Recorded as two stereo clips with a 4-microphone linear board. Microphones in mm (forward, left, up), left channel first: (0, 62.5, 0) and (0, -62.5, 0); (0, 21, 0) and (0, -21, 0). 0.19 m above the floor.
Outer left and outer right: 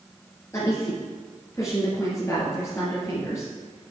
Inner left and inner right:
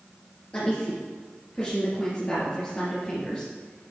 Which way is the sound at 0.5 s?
25° left (ahead or behind).